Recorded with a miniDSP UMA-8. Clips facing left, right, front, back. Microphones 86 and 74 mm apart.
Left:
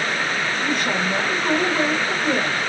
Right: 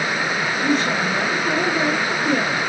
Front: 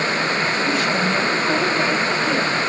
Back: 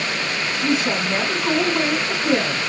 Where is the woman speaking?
120° left, 2.5 m.